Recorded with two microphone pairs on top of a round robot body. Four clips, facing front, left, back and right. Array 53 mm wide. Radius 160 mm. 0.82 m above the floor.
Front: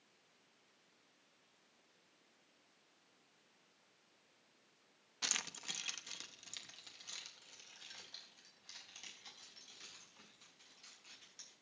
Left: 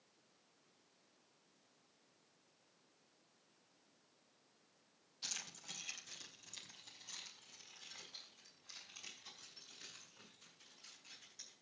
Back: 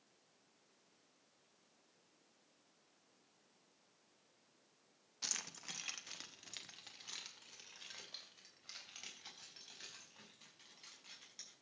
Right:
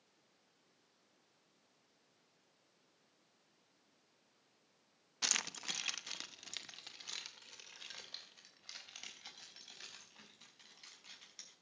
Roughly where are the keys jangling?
Right.